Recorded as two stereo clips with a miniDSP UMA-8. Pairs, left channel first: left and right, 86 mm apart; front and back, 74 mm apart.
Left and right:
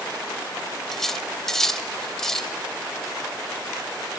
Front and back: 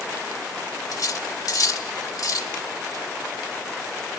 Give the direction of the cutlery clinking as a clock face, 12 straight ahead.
12 o'clock.